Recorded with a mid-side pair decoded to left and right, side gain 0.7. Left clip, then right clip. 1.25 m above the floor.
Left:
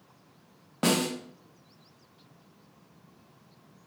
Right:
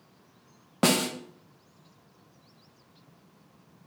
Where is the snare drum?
25° right, 0.8 m.